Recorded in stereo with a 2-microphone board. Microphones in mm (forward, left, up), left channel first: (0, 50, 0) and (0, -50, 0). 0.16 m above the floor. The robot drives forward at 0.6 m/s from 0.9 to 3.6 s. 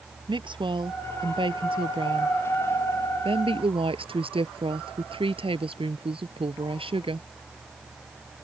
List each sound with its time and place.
0.3 s a woman speaking: 55° right (ahead or behind); by 7.3 s 65° right (ahead or behind)